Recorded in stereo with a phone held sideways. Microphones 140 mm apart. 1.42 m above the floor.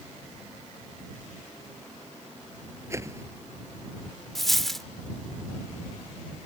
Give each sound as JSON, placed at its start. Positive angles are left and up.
{"t": 2.9, "sound": "a whoosh", "side_deg": -20}
{"t": 4.3, "sound": "a dropped coin", "side_deg": 5}